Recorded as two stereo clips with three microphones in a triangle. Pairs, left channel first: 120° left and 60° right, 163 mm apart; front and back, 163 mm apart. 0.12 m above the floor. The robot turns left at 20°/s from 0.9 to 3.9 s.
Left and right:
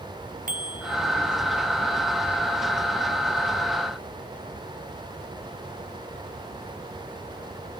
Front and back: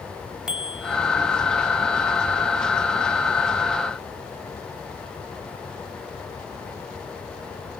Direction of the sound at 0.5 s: 95° right.